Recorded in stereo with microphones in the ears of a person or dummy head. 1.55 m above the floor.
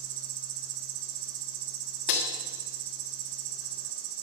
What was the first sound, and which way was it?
An insect, 65° right (ahead or behind).